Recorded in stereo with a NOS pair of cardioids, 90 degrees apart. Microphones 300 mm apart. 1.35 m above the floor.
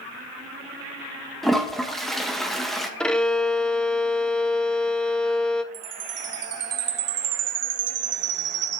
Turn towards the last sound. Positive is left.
turn(degrees=-60)